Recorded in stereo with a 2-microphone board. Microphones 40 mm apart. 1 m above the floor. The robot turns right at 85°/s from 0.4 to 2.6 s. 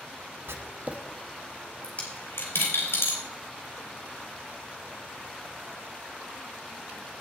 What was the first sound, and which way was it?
Writing, 75° right (ahead or behind).